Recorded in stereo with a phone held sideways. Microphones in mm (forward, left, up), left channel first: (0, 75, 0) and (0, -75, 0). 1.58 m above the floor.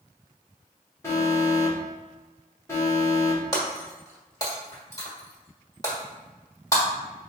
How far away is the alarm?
About 1.3 m.